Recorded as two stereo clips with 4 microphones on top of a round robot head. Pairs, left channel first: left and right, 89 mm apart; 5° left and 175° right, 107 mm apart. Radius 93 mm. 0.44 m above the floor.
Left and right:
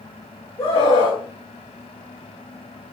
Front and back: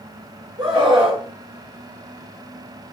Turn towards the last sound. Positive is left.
turn(degrees=150)